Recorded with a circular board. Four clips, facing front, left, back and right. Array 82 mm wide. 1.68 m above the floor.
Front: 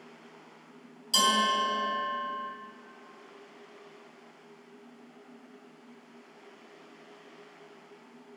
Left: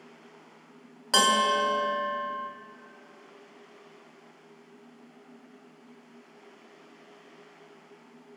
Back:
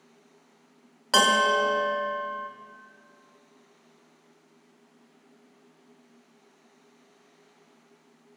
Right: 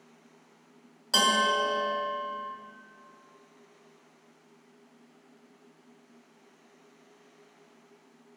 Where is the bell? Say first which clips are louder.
Left 2 dB, back 5 dB; 150° left, 1.4 m.